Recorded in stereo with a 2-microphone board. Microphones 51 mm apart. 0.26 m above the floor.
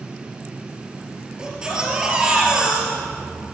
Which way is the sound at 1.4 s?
15° right (ahead or behind).